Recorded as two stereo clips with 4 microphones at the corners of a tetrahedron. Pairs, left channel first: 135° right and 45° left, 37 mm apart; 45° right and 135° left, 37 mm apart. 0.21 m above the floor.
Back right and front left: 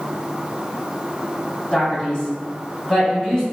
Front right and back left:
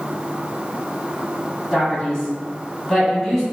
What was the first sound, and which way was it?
A man speaking, 120° right.